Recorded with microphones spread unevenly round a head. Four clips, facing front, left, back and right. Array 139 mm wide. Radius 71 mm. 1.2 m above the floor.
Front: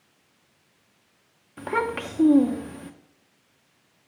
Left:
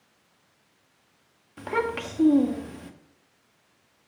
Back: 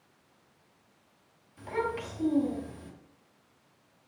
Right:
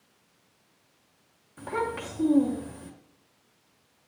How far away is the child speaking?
About 1.2 m.